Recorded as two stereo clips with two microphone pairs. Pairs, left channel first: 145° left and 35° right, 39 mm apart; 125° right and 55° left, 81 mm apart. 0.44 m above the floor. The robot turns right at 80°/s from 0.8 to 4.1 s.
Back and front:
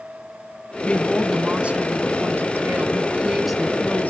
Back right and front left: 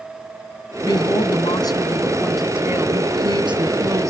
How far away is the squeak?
No squeak in this recording.